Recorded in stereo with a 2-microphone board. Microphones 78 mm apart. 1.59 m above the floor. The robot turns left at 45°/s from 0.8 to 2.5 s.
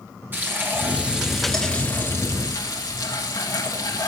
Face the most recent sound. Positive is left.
turn(degrees=130)